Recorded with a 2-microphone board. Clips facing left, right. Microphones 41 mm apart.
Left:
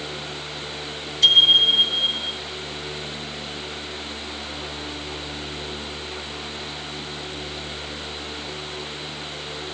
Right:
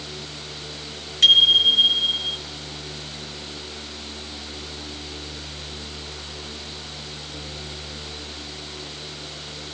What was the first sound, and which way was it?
A bicycle bell, 55° right (ahead or behind).